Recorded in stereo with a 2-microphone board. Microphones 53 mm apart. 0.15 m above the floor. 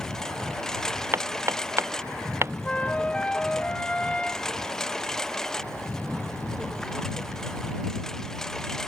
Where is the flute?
20° left (ahead or behind).